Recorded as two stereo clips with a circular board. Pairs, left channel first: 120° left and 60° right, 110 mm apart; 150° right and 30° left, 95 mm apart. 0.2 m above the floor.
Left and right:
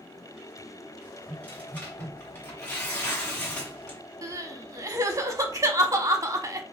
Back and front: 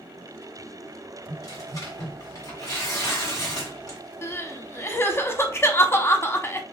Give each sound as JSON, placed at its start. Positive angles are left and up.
{"t": 1.3, "sound": "tearing paper", "azimuth_deg": -175, "distance_m": 2.0}
{"t": 4.2, "sound": "crying", "azimuth_deg": -100, "distance_m": 0.5}